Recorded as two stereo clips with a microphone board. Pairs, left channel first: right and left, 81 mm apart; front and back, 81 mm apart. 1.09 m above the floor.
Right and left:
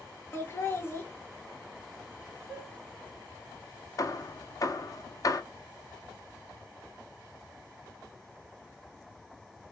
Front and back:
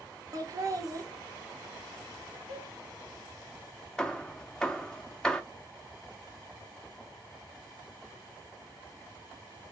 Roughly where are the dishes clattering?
Behind.